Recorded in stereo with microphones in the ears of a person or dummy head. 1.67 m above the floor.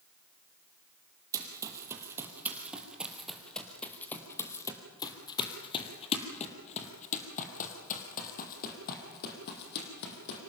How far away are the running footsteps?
About 3 m.